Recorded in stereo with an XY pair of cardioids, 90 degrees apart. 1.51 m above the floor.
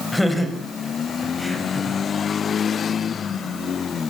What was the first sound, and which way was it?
Laughter, 10° left.